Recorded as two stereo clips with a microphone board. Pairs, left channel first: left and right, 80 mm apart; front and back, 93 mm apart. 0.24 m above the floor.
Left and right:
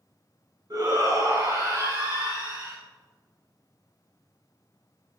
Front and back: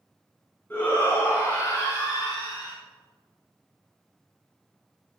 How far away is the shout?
About 2.5 m.